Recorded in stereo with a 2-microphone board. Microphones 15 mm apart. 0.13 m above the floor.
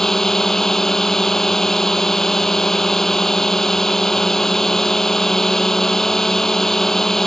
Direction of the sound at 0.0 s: 25° left (ahead or behind).